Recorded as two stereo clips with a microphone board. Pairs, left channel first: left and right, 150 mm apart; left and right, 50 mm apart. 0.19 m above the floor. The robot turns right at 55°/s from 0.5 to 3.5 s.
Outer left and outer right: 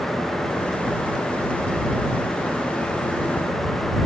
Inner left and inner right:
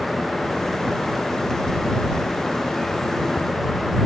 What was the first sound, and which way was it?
Only background noise.